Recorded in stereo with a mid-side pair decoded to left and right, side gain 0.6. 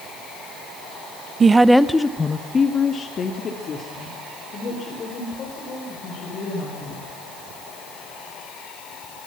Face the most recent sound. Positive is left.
turn(degrees=45)